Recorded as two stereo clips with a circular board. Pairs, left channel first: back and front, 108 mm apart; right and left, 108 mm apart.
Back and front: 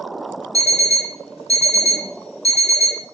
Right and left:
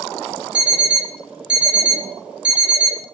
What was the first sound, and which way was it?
An alarm clock, 170° left.